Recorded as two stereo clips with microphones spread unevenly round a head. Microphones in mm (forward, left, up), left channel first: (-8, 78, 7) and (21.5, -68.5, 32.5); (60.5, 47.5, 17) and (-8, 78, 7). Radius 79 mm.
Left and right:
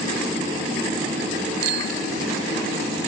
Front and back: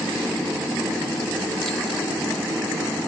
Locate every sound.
1.6 s a bicycle bell: 110° right